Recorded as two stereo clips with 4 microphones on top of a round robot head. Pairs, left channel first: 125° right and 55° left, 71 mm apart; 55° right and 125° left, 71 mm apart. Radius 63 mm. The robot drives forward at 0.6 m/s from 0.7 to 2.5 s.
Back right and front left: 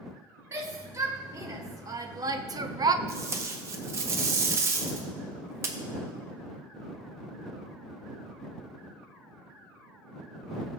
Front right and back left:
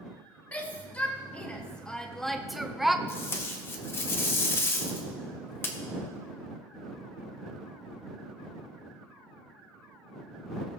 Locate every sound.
0.5 s a shout: 10° left, 1.6 m; by 3.0 s 35° left, 0.6 m
3.1 s tape being pulled: straight ahead, 0.6 m